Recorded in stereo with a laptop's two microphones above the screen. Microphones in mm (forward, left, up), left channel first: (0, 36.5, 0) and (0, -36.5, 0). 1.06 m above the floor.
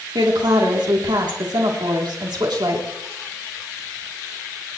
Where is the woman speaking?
75° right (ahead or behind), 3 m.